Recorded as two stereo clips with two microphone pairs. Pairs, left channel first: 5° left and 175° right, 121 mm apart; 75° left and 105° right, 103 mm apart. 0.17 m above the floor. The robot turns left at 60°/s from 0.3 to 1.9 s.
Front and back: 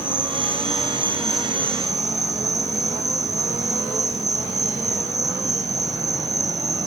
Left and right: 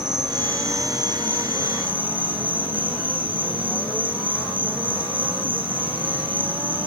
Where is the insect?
25° right, 2.5 m; by 6.9 s 120° right, 2.5 m.